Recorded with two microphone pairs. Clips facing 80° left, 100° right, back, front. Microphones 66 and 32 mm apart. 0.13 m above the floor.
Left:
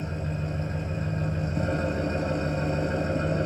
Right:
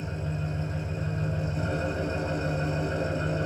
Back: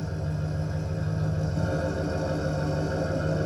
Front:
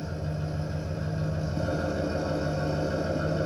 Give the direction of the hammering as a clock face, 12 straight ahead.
I don't hear hammering.